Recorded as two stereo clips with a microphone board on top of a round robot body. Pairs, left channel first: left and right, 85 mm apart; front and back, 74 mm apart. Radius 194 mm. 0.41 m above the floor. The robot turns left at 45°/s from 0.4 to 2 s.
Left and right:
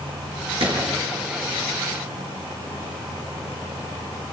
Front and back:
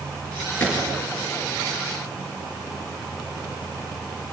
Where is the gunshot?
70° right, 6.5 m; by 1.0 s 90° right, 6.5 m.